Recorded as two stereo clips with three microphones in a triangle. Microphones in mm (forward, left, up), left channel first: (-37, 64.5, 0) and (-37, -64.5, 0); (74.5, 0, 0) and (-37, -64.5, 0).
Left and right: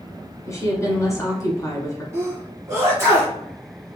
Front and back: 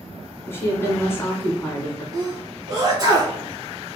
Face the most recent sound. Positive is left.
turn(degrees=-135)